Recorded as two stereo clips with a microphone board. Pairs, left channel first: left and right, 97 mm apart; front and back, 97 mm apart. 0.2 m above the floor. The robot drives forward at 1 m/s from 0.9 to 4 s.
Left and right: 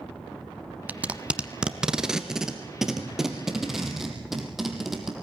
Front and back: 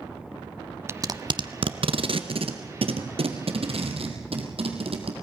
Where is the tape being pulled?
150° right, 0.6 m; by 5.1 s 175° right, 3.5 m.